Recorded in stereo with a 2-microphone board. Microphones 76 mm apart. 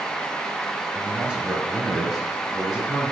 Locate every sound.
0.9 s a man speaking: 15° right (ahead or behind), 1.2 m; by 3.1 s 5° left (ahead or behind), 1.8 m